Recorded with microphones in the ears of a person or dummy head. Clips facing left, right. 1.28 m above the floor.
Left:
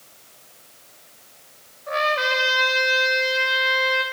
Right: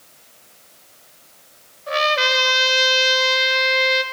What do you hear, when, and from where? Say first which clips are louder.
1.9 s a trumpet: right 2 dB; 45° right (ahead or behind), 1.1 m